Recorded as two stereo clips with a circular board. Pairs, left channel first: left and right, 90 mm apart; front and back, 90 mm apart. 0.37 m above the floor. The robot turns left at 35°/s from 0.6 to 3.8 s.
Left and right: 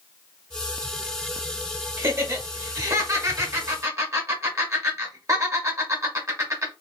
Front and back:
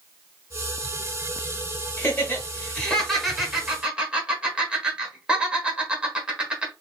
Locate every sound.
2.0 s laughter: 45° right, 1.4 m; by 6.7 s 110° right, 1.4 m